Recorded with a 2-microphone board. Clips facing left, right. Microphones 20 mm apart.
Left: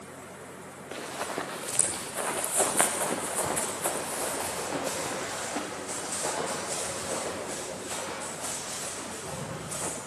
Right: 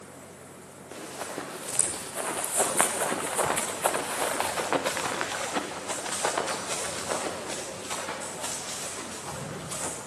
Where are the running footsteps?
30° left (ahead or behind), 2 m; by 10.0 s 80° right, 6 m.